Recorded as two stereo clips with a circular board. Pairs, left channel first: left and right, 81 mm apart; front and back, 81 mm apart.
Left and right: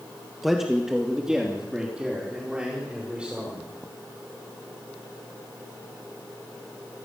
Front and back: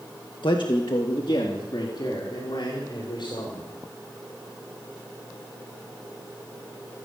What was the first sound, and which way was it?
A man speaking, straight ahead.